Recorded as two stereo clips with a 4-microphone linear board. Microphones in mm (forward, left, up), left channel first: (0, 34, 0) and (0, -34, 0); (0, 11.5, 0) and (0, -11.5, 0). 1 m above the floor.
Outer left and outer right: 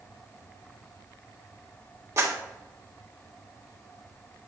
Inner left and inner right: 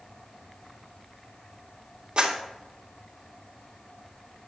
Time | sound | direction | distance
2.2 | a clap | 45° right (ahead or behind) | 1.8 m